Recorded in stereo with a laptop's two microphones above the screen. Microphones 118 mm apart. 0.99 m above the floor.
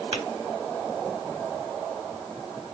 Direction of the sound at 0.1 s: 55° right (ahead or behind).